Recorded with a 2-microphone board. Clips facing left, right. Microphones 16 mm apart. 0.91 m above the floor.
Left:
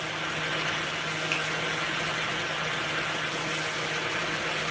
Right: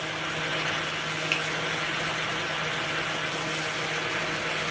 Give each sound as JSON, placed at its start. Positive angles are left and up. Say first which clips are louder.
{"t": 1.3, "sound": "a finger snap", "louder": "right 2 dB", "side_deg": -15, "distance_m": 1.5}